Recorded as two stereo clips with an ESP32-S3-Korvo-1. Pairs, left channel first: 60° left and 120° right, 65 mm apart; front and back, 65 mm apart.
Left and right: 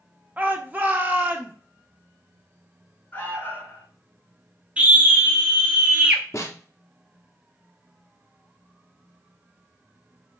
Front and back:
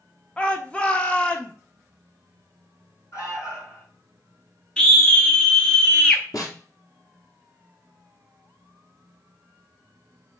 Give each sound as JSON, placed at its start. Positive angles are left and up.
{"t": 0.4, "sound": "a shout", "azimuth_deg": -65, "distance_m": 0.9}
{"t": 3.1, "sound": "an alarm", "azimuth_deg": 5, "distance_m": 3.5}
{"t": 4.8, "sound": "a scream", "azimuth_deg": -65, "distance_m": 0.7}
{"t": 6.3, "sound": "a snare drum", "azimuth_deg": 20, "distance_m": 2.0}